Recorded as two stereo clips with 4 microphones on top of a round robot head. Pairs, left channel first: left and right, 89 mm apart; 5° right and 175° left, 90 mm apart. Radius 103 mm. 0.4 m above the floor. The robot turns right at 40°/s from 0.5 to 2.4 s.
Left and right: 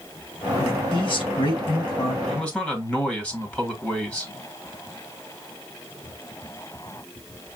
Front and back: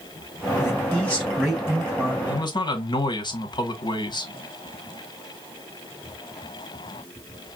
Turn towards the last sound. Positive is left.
turn(degrees=15)